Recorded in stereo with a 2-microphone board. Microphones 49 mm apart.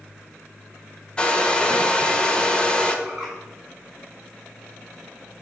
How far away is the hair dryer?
About 0.9 m.